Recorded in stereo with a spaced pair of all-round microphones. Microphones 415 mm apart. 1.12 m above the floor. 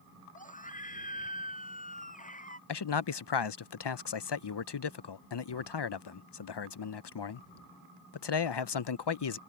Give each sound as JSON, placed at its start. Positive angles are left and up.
{"t": 0.3, "sound": "a scream", "side_deg": 20}
{"t": 2.7, "sound": "a man speaking", "side_deg": 75}